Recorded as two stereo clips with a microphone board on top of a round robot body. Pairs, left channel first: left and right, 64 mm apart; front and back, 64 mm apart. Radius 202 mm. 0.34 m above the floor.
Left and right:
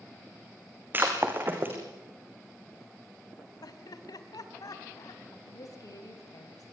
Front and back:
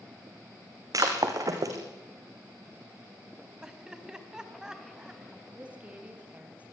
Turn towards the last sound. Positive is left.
turn(degrees=110)